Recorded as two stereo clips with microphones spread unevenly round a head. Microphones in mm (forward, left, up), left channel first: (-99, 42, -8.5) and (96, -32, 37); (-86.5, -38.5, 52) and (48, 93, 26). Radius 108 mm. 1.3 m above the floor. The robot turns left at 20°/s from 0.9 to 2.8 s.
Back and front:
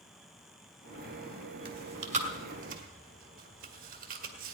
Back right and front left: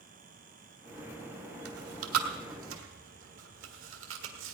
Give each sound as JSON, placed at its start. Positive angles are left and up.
{"t": 1.6, "sound": "chewing", "azimuth_deg": 35, "distance_m": 1.5}